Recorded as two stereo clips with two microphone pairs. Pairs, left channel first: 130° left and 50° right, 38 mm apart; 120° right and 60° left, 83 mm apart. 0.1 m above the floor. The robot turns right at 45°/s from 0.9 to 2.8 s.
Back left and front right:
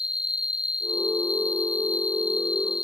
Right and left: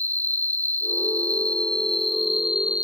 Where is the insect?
90° right; by 2.9 s 5° right.